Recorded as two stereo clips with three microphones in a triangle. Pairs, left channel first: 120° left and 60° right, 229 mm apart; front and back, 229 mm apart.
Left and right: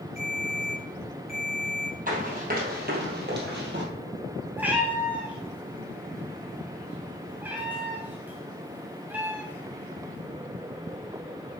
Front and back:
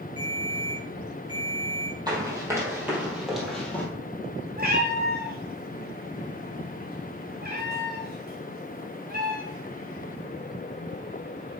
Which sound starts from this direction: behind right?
A cat meowing, at 4.6 s.